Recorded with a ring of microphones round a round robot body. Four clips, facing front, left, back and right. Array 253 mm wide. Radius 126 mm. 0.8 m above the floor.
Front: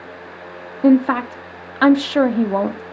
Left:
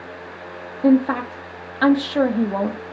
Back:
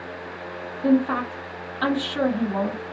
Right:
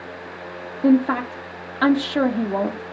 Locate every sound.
0.8 s a woman speaking: straight ahead, 0.8 m